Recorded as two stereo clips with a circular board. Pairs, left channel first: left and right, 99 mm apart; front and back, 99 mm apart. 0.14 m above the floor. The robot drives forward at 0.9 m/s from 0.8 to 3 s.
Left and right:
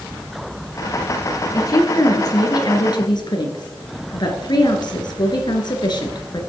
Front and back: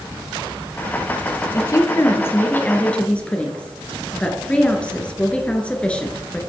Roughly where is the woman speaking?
Ahead left.